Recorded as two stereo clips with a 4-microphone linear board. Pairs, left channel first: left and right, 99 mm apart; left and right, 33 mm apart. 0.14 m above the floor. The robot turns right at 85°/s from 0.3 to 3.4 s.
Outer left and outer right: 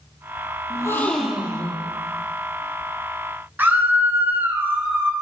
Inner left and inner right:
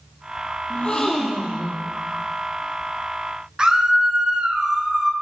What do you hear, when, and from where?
0.7 s a gasp: 135° left, 1.1 m; by 1.9 s 125° right, 1.1 m
3.6 s a scream: 20° right (ahead or behind), 1.3 m